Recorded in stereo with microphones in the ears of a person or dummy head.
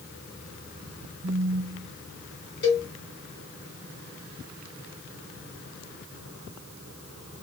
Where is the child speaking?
I don't hear a child speaking.